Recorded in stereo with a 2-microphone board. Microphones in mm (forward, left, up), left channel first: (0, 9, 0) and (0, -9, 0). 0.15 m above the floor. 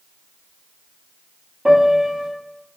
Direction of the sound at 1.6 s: 70° right (ahead or behind).